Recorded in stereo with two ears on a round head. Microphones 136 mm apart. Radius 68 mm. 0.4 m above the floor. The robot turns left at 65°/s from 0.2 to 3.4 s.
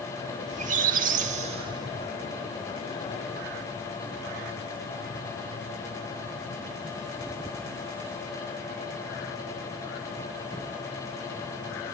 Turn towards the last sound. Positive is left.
turn(degrees=110)